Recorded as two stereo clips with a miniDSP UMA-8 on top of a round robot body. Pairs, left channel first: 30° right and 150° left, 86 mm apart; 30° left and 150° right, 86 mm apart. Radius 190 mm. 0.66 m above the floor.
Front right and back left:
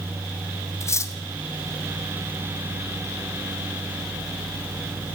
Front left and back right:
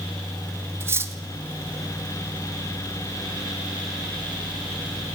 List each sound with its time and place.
0.8 s cutlery clinking: 85° right, 1.0 m